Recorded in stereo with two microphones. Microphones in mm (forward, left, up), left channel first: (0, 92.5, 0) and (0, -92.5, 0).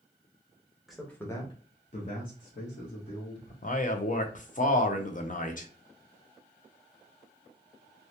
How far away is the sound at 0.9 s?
About 0.7 m.